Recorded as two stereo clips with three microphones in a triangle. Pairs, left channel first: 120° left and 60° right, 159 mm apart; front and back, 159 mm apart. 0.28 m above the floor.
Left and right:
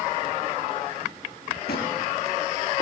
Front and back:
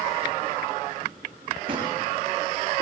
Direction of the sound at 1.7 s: 125° left.